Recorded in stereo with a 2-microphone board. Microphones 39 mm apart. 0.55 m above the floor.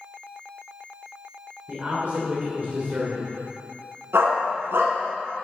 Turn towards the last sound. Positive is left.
turn(degrees=-85)